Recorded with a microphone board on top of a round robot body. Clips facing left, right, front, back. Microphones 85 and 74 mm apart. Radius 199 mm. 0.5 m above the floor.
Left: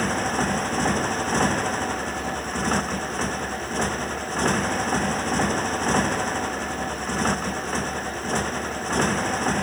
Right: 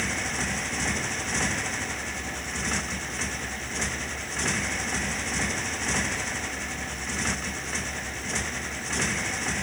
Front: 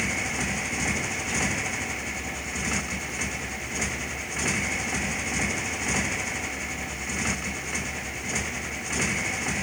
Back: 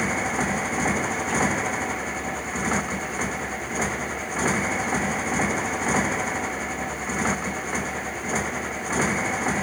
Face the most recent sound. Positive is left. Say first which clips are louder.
# left 7 dB, back 5 dB
turn(degrees=130)